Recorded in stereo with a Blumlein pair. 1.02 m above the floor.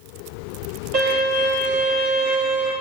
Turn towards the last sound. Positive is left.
turn(degrees=-35)